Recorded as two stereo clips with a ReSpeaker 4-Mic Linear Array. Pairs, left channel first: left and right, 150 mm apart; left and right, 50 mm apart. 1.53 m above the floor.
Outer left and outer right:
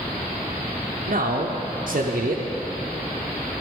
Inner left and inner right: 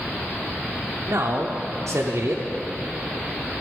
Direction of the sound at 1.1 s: 65° right (ahead or behind).